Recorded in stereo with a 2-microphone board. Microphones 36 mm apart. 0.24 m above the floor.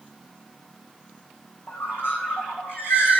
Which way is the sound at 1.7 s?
85° left.